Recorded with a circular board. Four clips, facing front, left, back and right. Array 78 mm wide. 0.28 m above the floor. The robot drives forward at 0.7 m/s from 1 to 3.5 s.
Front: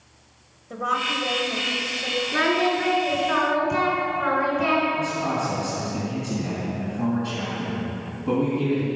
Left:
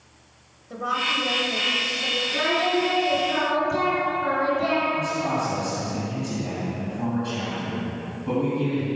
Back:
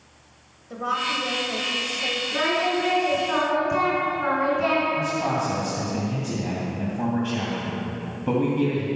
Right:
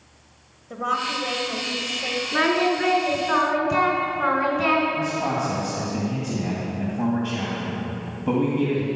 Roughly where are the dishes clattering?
I don't hear dishes clattering.